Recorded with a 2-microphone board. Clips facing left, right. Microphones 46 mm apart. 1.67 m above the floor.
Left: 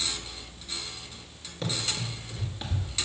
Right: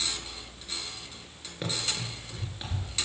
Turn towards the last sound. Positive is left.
turn(degrees=5)  # may be behind; listen again after turning